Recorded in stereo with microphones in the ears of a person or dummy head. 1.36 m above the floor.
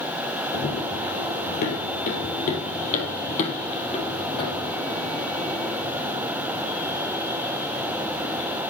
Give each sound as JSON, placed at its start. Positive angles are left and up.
{"t": 0.5, "sound": "running footsteps", "side_deg": 40, "distance_m": 2.0}